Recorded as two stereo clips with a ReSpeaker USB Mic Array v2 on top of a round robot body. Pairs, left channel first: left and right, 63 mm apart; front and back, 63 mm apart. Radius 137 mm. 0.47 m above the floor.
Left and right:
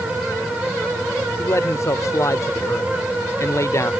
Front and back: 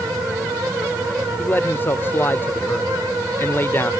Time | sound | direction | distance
1.4 | a man speaking | 55° left | ?